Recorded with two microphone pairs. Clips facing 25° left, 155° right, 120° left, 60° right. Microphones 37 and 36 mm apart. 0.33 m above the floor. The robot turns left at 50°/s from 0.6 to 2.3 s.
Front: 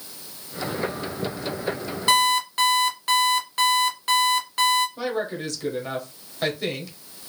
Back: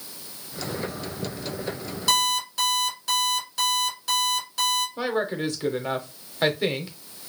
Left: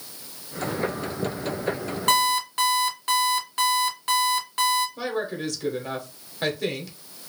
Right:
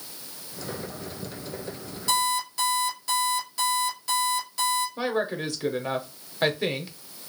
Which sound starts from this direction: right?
A woman speaking, at 5.0 s.